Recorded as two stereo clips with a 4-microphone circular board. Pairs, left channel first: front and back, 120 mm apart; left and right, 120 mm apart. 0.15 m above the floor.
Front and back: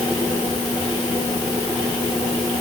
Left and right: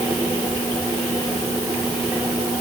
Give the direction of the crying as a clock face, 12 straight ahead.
No crying in this recording.